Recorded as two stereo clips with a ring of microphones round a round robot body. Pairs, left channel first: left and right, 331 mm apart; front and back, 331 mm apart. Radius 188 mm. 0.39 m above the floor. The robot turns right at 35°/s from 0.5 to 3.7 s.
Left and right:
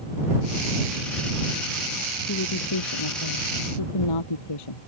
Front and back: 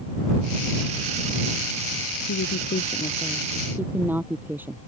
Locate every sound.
2.3 s a woman speaking: 45° left; by 4.8 s 95° left